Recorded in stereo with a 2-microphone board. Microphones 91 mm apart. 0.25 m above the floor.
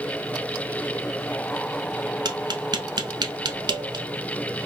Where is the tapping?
50° right (ahead or behind), 0.5 m.